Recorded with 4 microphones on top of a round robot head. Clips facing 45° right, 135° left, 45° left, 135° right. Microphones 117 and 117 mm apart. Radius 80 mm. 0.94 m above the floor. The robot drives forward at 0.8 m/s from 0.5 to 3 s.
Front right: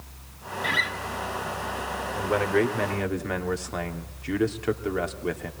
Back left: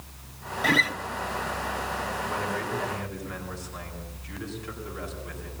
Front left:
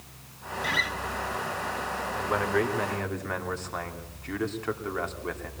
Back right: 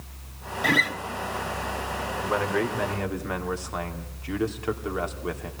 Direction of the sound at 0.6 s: 175° right.